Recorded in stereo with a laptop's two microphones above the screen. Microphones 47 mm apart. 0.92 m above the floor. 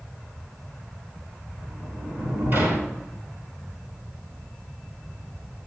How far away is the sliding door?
About 3 m.